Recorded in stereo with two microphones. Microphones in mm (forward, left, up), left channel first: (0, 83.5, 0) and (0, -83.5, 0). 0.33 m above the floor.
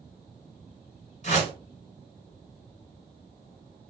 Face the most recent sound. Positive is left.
turn(degrees=45)  # may be behind; listen again after turning